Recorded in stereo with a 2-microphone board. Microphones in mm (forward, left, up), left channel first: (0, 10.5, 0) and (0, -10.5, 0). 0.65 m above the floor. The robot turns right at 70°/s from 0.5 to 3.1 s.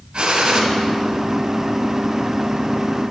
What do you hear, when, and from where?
0.1 s a gunshot: 40° right (ahead or behind), 2.5 m; by 0.6 s 30° right (ahead or behind), 2.5 m